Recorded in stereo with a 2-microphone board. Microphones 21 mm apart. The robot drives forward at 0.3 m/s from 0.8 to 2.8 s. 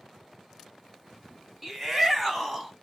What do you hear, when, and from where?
1.6 s a shout: 10° right (ahead or behind), 1.1 m